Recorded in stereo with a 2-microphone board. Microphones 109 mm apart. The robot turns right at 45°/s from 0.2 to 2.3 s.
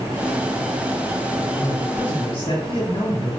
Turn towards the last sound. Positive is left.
turn(degrees=80)